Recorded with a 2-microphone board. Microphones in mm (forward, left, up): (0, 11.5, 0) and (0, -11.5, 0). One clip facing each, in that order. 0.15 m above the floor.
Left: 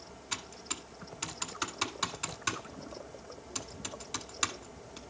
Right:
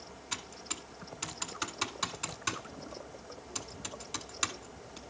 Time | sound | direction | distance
0.3 | typing on a keyboard | 5° left (ahead or behind) | 0.9 m